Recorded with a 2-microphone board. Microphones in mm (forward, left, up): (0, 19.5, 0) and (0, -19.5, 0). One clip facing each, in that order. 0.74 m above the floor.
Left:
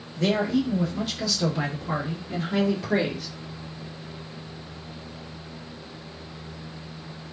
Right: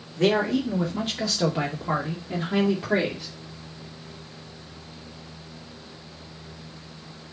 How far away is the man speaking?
About 2.5 m.